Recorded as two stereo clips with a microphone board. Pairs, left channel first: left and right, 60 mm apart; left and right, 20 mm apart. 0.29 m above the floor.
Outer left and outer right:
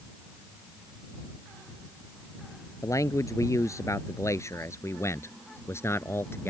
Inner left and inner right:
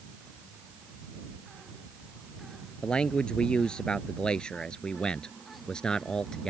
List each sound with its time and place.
2.8 s a man speaking: 60° left (ahead or behind); by 6.5 s 40° left (ahead or behind)